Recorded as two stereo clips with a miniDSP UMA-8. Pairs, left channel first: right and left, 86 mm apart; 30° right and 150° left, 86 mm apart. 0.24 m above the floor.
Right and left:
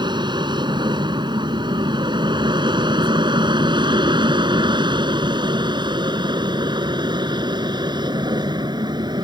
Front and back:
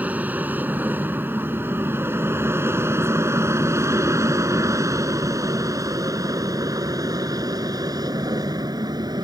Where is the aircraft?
80° left; by 9.2 s 115° left.